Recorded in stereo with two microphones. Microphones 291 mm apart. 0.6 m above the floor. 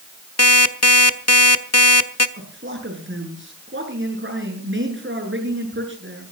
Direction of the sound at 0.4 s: 60° left (ahead or behind).